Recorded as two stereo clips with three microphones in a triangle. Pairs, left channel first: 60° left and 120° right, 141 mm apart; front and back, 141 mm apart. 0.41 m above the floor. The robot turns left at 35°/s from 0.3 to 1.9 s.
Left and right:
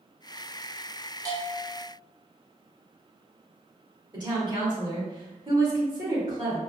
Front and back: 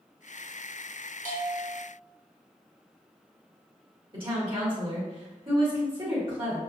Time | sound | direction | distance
1.2 | a bell | 175° left | 1.2 m
4.1 | a woman speaking | 160° right | 1.6 m